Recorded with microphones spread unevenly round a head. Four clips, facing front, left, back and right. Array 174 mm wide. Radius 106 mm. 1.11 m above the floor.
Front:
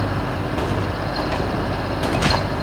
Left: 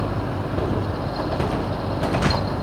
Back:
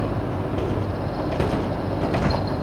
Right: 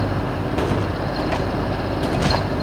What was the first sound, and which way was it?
Only background noise.